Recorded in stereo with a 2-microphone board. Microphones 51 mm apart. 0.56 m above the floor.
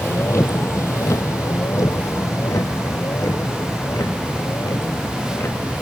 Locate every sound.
0.0 s a vehicle: 55° left (ahead or behind); by 5.8 s 65° left (ahead or behind)